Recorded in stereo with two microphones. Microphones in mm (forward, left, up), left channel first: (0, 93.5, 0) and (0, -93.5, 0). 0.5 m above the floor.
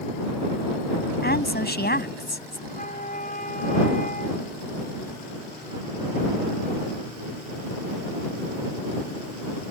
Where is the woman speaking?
65° left (ahead or behind).